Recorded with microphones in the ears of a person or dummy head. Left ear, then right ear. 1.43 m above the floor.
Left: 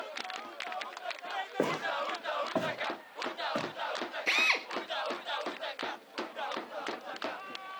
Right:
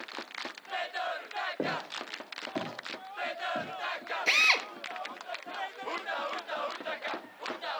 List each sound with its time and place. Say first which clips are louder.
1.6 s footsteps: left 3 dB; 80° left, 6.5 m; by 3.7 s 75° left (ahead or behind), 7 m
4.3 s a drill: right 4 dB; 25° right (ahead or behind), 1.5 m